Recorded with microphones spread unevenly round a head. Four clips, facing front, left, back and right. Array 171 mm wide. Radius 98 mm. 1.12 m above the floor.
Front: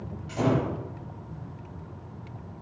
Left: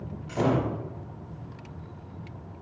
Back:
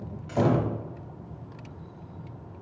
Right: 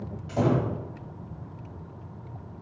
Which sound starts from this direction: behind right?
A door slam, at 0.3 s.